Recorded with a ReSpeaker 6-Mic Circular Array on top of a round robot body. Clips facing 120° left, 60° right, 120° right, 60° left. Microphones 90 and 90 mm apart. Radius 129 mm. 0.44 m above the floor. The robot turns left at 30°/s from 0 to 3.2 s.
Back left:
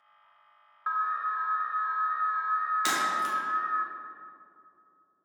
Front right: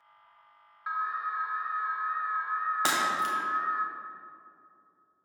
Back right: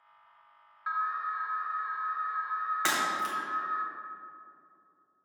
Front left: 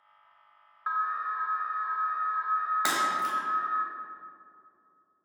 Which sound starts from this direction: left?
An alarm, at 0.9 s.